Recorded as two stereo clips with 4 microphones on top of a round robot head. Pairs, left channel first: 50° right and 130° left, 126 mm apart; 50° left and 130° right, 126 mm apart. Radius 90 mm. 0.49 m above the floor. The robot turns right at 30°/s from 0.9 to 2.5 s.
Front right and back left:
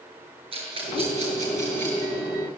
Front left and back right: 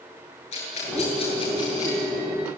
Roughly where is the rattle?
Left.